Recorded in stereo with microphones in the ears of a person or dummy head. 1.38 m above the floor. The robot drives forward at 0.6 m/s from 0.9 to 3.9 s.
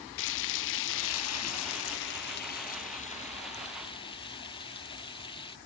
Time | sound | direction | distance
0.2 | frying | 65° left (ahead or behind) | ?